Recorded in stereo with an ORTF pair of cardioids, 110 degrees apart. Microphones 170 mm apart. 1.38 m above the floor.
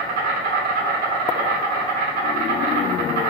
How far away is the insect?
About 0.8 m.